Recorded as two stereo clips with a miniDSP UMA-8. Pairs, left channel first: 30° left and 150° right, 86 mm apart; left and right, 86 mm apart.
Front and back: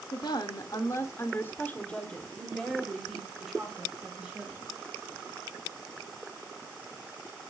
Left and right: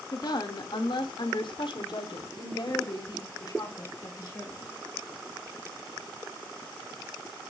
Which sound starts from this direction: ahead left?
A woman speaking, at 0.1 s.